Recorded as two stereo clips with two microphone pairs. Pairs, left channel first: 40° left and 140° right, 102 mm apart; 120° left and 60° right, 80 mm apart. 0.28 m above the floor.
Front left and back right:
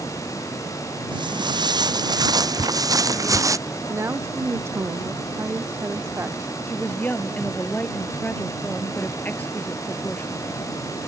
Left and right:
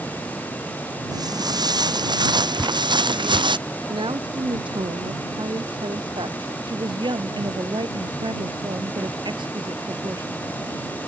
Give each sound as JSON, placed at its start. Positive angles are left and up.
{"t": 1.1, "sound": "footsteps", "azimuth_deg": -95}
{"t": 2.6, "sound": "dripping", "azimuth_deg": 40}
{"t": 3.9, "sound": "a woman speaking", "azimuth_deg": -75}
{"t": 6.7, "sound": "a woman speaking", "azimuth_deg": -35}